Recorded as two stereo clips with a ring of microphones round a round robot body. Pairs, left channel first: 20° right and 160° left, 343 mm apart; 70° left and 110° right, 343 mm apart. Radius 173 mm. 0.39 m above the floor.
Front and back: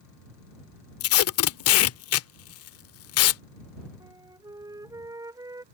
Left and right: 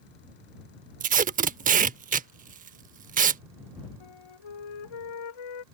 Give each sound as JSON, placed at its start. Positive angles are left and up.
{"t": 1.0, "sound": "tape being pulled", "azimuth_deg": -55}
{"t": 4.0, "sound": "a flute", "azimuth_deg": 75}